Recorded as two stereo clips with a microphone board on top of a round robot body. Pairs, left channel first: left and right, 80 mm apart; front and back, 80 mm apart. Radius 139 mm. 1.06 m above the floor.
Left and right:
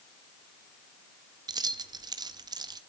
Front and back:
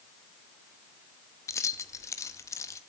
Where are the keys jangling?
55° right, 0.8 m.